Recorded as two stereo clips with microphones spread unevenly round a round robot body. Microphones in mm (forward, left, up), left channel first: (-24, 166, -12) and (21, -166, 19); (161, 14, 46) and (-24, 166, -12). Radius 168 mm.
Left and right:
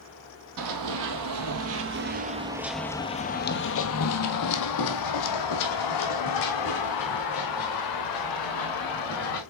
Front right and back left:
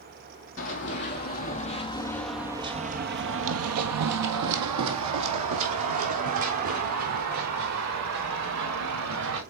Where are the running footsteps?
60° right, 1.3 m; by 9.4 s 130° left, 3.5 m.